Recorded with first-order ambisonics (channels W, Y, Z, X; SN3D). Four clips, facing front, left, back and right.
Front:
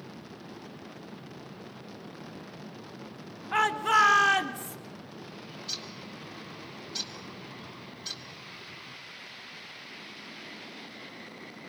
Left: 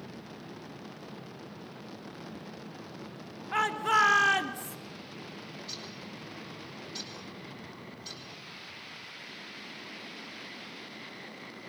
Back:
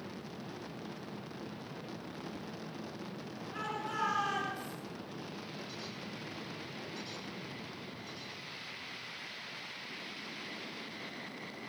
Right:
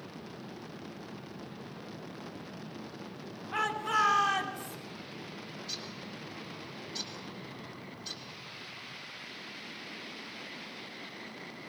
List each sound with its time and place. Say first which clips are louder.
3.5 s a shout: left 4 dB, front 15 dB; 25° left, 3 m; by 4.8 s 45° left, 3 m
5.5 s a bird: right 2 dB, front 5 dB; 5° left, 3 m